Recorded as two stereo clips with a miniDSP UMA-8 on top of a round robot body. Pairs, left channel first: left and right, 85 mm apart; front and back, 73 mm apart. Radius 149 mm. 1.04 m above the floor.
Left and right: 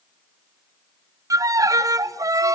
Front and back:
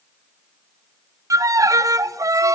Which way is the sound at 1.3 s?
135° right.